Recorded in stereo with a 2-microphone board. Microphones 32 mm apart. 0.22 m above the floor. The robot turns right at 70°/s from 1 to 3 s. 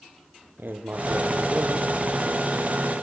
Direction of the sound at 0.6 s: 105° right.